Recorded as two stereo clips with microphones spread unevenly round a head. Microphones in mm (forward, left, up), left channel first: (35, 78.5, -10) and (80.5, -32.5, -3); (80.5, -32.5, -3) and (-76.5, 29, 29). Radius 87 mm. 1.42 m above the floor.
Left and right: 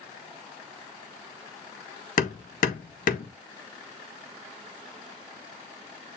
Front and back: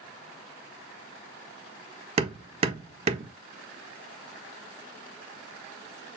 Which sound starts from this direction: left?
Hammering, at 2.2 s.